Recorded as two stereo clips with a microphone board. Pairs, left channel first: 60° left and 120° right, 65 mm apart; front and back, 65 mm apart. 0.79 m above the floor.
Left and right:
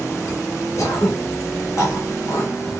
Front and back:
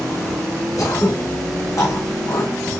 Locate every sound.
0.8 s throat clearing: 30° left, 2.5 m